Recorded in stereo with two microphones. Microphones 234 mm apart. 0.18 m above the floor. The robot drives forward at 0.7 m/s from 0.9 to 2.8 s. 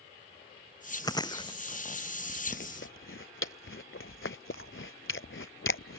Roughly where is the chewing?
Centre.